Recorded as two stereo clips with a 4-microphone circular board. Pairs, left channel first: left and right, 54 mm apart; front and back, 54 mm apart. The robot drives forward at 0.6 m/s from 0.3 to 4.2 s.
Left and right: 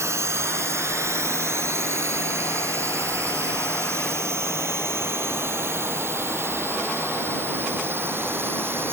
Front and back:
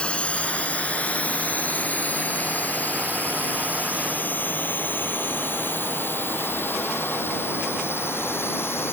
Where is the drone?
70° right; by 8.9 s 45° right.